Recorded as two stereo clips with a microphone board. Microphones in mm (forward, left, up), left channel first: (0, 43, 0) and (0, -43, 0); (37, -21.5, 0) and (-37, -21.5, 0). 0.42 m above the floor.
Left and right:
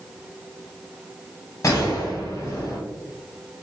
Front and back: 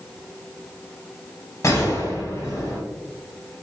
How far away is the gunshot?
About 1.0 m.